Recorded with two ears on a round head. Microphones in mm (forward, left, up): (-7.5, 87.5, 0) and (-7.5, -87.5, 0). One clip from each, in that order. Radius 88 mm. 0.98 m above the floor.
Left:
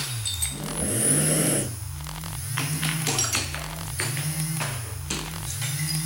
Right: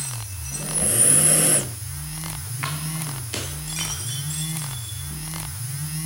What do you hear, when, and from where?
0.5 s breathing: 75° right (ahead or behind), 4.5 m